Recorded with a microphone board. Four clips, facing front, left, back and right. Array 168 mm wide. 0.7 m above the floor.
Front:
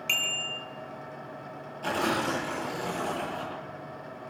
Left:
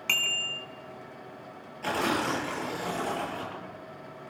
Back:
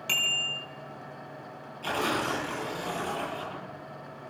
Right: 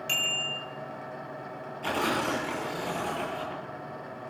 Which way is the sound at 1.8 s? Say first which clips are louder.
Even, front 1 dB; 55° left.